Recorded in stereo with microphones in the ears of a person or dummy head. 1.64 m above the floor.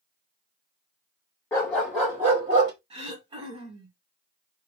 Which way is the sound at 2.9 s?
30° right (ahead or behind).